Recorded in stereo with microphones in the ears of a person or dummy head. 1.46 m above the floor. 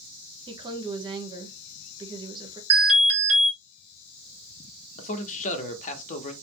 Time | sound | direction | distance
0.5 | a woman speaking | 30° right (ahead or behind) | 1.2 m
2.7 | an alarm | 35° right (ahead or behind) | 2 m
5.0 | a man speaking | 40° left (ahead or behind) | 1.0 m